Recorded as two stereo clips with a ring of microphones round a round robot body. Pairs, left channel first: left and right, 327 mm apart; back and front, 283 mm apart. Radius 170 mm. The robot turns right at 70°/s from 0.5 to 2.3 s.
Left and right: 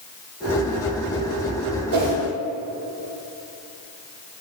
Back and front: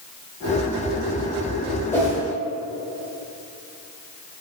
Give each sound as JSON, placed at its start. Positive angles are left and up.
{"t": 1.9, "sound": "a whoosh", "azimuth_deg": -100, "distance_m": 1.0}